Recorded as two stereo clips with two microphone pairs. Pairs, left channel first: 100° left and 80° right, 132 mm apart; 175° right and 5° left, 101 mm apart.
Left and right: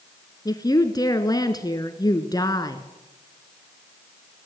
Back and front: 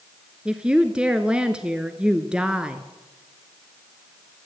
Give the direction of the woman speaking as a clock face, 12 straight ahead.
9 o'clock.